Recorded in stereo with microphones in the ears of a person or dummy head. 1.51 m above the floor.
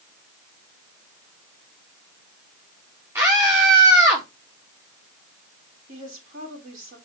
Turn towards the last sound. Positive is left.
turn(degrees=-45)  # may be behind; listen again after turning